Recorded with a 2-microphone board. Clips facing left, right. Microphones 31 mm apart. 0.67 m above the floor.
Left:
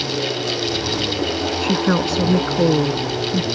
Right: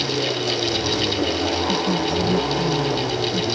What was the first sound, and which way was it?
A woman speaking, 65° left (ahead or behind).